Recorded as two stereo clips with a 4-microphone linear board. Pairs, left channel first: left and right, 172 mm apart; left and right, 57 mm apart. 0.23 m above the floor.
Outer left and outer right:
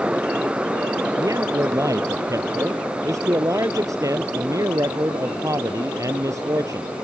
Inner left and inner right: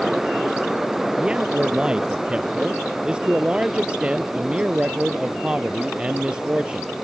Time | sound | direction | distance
1.2 | a man speaking | 20° right (ahead or behind) | ?